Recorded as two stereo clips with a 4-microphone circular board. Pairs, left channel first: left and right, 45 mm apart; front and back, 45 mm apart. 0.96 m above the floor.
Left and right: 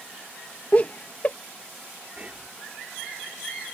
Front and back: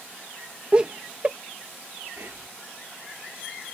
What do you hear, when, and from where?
0.7 s laughter: 125° left
2.2 s whispering: 150° right